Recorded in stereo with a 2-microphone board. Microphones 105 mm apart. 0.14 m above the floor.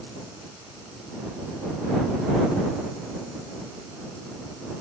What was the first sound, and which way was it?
Only background noise.